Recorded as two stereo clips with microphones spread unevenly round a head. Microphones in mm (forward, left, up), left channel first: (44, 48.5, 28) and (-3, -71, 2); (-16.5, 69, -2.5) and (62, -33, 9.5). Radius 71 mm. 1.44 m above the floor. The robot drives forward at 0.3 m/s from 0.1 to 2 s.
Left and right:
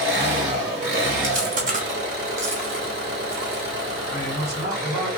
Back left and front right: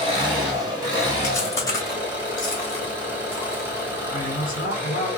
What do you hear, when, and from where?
0.0 s an engine running: 115° right, 1.7 m; by 5.2 s 130° right, 2.0 m
1.2 s chewing: 155° right, 0.7 m; by 3.9 s 165° right, 0.9 m
4.0 s a man speaking: 170° left, 2 m